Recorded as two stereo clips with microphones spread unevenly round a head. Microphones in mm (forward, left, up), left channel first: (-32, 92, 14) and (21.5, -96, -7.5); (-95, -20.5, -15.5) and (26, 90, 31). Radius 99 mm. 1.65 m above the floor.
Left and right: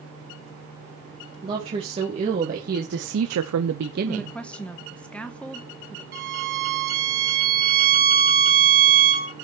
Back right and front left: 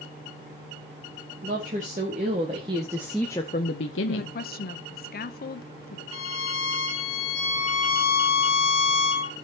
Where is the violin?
115° right, 2.0 m.